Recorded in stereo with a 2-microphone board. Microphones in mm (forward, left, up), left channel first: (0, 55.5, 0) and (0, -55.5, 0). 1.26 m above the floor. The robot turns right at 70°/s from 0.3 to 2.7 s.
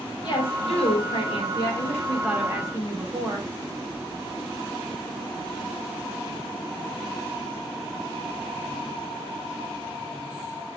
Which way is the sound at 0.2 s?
45° left.